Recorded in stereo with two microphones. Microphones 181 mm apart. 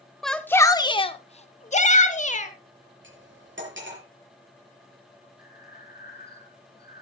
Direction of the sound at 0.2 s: Centre (ahead or behind).